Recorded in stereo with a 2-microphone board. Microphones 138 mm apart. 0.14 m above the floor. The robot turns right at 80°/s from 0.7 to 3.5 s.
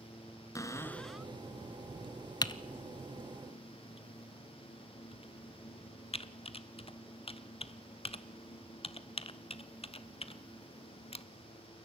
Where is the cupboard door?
145° left, 0.8 m; by 1.3 s 165° right, 0.8 m.